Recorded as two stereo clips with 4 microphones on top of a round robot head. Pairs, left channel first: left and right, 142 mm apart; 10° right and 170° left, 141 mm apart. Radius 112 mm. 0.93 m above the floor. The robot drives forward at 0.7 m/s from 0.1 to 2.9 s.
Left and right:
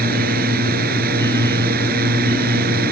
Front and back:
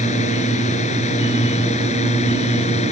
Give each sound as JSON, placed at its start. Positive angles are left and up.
{"t": 0.0, "sound": "a drone", "azimuth_deg": -60}